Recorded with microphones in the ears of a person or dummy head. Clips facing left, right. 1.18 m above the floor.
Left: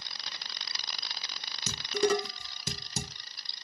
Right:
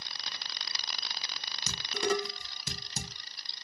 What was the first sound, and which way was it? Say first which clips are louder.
Dishes clattering: left 4 dB; 75° left (ahead or behind).